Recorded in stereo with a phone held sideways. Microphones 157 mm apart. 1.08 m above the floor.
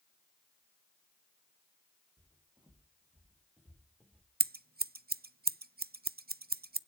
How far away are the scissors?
About 0.5 m.